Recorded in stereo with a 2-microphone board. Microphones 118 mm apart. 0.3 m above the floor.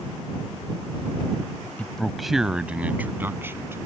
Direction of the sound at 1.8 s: 10° left (ahead or behind).